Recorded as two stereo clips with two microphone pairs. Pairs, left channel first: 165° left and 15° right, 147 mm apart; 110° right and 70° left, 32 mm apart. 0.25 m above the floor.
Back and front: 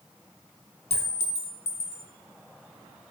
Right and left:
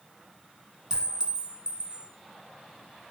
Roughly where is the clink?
Behind left.